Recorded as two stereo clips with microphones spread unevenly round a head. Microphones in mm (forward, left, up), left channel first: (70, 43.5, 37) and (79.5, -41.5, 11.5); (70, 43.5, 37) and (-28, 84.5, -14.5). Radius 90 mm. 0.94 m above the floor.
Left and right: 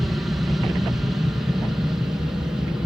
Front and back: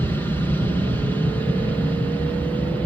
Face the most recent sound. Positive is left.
turn(degrees=-130)